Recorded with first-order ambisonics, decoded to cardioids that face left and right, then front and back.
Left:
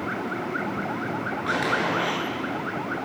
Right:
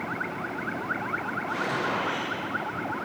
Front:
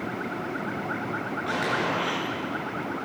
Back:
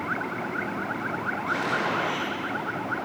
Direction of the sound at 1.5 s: 70° left.